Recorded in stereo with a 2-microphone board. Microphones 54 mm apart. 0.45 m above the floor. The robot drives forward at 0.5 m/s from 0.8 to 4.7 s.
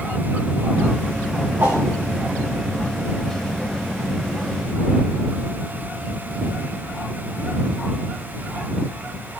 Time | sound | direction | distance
1.6 | a whoosh | 40° right (ahead or behind) | 9 m